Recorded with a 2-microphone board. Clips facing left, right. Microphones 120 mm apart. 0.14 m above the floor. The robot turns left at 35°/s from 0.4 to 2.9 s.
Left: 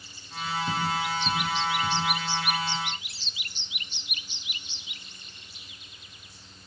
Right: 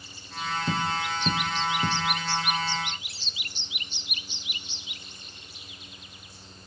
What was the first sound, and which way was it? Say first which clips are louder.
Tapping: even; 35° right (ahead or behind).